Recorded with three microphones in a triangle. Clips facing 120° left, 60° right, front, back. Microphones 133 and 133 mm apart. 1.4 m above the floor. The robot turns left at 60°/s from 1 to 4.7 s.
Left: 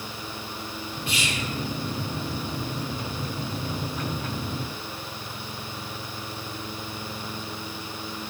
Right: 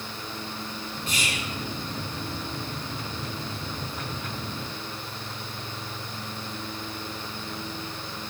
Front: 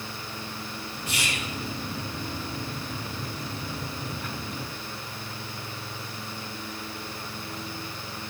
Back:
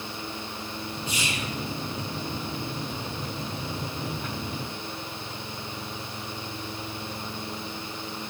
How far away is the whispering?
About 4 m.